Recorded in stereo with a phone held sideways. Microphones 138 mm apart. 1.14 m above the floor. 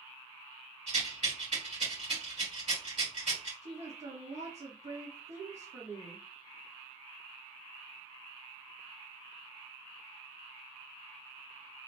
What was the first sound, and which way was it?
A rattle, 70° right (ahead or behind).